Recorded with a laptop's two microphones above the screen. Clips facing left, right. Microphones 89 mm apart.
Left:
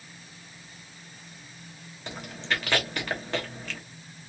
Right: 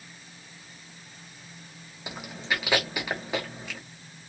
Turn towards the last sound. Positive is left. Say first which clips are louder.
# even
turn(degrees=-10)  # may be behind; listen again after turning